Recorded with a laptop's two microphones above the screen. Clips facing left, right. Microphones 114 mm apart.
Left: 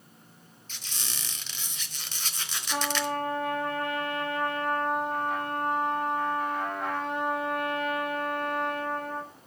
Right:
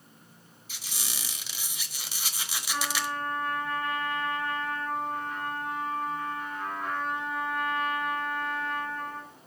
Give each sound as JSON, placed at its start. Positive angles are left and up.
{"t": 0.7, "sound": "a squeak", "side_deg": -10, "distance_m": 1.1}
{"t": 2.7, "sound": "a trumpet", "side_deg": 80, "distance_m": 3.0}